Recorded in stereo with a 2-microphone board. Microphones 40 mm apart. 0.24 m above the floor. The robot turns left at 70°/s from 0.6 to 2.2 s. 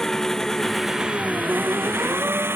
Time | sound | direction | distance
0.0 | an engine running | 15° left | ?